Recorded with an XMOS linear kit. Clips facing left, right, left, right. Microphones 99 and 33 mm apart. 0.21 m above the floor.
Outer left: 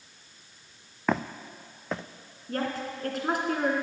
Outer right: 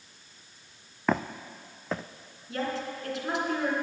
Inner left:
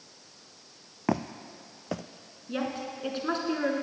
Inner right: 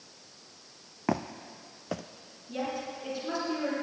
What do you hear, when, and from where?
1.1 s footsteps: centre (ahead or behind), 0.5 m
2.5 s a woman speaking: 45° left (ahead or behind), 2.5 m